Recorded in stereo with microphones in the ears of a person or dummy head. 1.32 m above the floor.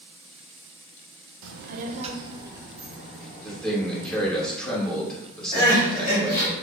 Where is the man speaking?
5° left (ahead or behind), 1.7 m.